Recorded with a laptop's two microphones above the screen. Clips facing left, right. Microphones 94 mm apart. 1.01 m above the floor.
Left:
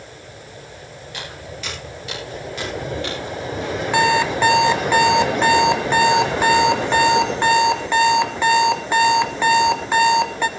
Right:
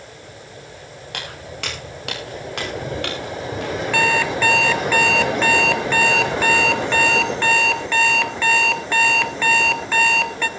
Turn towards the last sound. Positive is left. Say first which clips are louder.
# left 3 dB
turn(degrees=20)  # may be behind; listen again after turning